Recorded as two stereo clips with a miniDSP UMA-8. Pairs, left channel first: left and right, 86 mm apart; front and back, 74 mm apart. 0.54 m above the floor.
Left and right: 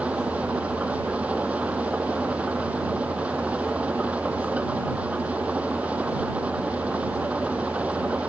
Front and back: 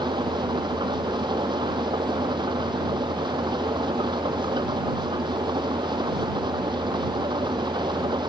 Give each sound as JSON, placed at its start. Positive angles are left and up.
{"t": 0.0, "sound": "an engine running", "azimuth_deg": -165}